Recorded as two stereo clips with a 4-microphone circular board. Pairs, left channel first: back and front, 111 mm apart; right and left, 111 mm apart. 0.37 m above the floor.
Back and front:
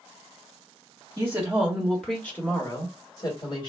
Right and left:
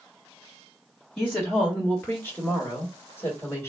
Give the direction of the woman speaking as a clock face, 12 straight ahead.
1 o'clock.